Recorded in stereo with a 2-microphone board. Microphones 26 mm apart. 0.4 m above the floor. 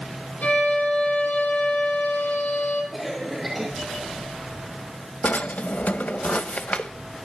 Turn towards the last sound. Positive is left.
turn(degrees=70)  # may be behind; listen again after turning